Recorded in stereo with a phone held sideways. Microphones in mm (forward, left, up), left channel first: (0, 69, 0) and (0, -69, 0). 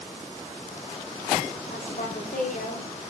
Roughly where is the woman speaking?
Left.